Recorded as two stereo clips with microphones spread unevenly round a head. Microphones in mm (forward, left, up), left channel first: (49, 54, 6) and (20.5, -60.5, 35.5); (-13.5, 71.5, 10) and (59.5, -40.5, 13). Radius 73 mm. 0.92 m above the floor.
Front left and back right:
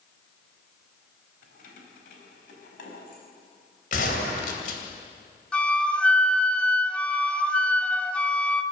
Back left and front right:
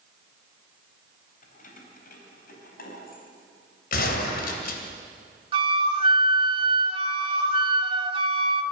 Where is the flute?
15° right, 1.1 m.